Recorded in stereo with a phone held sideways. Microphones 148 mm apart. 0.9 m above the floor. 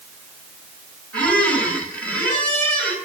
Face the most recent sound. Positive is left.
turn(degrees=10)  # may be behind; listen again after turning